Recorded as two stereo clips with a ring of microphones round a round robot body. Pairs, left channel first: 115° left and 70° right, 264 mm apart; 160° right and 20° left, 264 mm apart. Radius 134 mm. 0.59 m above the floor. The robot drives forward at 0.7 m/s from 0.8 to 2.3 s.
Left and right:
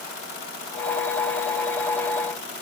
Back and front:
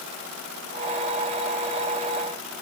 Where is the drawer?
I don't hear a drawer.